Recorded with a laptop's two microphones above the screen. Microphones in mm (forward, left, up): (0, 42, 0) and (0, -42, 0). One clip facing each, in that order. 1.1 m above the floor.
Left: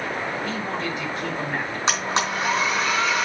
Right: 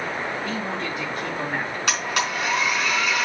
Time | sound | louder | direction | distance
0.4 | a man speaking | even | centre (ahead or behind) | 5 m
1.9 | a blender | left 2 dB | 25° left (ahead or behind) | 4 m